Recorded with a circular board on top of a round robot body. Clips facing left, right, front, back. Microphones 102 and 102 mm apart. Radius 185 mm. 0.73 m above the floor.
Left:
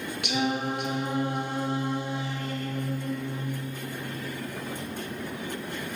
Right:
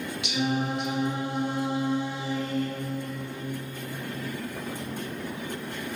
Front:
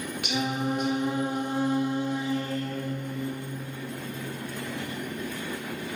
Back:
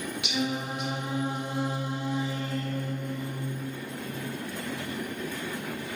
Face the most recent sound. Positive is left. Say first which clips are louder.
# even, front 3 dB
turn(degrees=50)